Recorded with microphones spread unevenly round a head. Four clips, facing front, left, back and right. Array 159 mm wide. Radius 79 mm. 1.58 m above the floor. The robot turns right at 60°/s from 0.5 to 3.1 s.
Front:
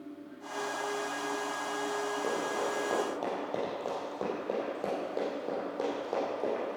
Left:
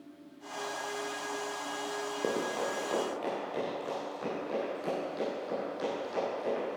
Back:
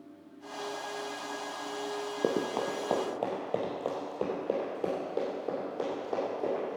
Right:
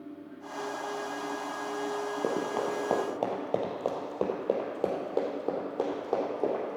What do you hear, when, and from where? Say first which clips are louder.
2.2 s running footsteps: right 1 dB, back 6 dB; 170° right, 2 m; by 6.8 s 75° right, 4 m